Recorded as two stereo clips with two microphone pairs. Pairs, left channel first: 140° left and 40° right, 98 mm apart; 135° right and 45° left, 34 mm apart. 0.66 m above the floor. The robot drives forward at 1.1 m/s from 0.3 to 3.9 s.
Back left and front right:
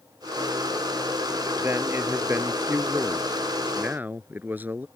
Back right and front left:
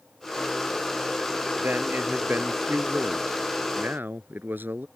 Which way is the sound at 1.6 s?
25° left.